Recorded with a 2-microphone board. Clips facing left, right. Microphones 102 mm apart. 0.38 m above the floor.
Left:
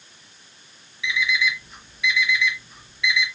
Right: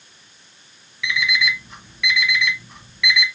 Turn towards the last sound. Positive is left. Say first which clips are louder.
# right 1 dB
turn(degrees=-70)  # may be behind; listen again after turning